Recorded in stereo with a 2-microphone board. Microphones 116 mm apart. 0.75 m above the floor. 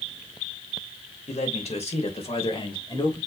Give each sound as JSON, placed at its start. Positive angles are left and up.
{"t": 1.3, "sound": "a man speaking", "side_deg": 75, "distance_m": 3.0}